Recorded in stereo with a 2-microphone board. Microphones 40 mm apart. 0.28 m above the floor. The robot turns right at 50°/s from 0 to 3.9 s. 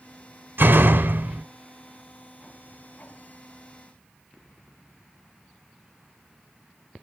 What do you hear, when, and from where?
0.6 s a door slam: 95° right, 1.2 m; by 1.4 s 50° right, 1.2 m